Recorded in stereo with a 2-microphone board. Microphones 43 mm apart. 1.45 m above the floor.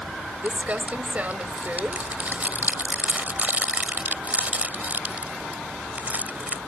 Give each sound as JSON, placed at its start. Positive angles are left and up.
{"t": 0.4, "sound": "crumpling", "side_deg": -35}